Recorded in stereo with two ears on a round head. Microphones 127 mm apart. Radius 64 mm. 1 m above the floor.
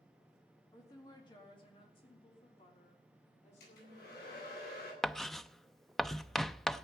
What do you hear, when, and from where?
0.7 s a woman speaking: 25° left (ahead or behind), 2 m; by 4.6 s 55° left (ahead or behind), 4 m
3.6 s a hair dryer: 85° left, 9.5 m
5.0 s writing: 5° left (ahead or behind), 0.5 m